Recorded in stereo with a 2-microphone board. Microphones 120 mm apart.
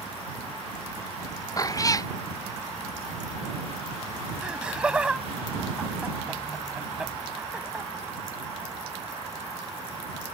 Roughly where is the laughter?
Centre.